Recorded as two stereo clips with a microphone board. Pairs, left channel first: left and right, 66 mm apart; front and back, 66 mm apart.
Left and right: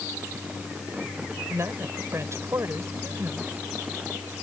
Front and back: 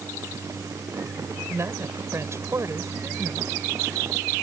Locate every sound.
1.5 s a woman speaking: 135° right